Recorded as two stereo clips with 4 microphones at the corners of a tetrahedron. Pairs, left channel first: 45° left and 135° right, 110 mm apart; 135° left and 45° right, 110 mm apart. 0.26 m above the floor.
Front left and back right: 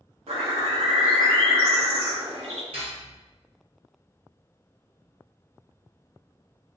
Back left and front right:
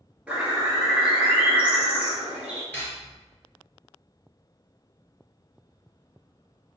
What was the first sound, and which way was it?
A bird, 125° right.